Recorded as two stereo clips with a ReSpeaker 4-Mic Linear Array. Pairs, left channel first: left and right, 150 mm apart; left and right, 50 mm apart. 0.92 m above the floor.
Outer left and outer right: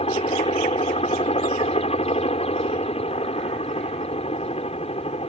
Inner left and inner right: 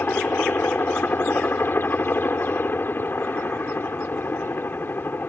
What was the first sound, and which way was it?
A helicopter, 40° left (ahead or behind).